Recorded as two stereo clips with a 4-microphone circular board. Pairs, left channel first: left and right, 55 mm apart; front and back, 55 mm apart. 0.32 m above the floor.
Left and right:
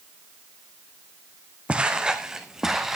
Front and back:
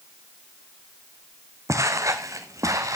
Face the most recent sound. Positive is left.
turn(degrees=-175)